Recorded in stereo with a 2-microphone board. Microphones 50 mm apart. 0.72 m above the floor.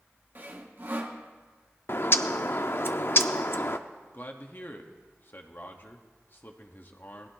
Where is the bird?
50° left (ahead or behind), 0.6 m.